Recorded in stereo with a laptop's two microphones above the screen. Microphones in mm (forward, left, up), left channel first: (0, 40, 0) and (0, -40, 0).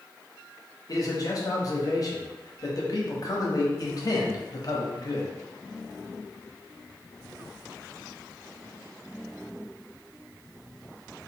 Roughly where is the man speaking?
Left.